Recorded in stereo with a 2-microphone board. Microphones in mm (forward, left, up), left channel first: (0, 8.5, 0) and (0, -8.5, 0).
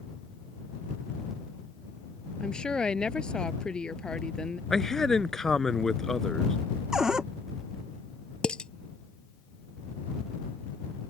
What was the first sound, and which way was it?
A woman speaking, 60° left (ahead or behind).